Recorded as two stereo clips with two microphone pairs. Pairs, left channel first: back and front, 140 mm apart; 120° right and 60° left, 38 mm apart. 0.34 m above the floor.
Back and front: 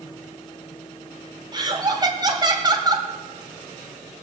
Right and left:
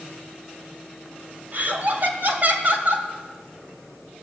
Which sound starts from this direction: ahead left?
Laughter, at 1.5 s.